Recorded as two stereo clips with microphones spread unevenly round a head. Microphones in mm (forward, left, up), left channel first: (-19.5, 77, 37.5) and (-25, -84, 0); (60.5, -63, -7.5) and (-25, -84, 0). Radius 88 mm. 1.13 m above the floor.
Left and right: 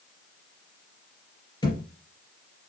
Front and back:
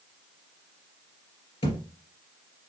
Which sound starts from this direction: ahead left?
A thud, at 1.6 s.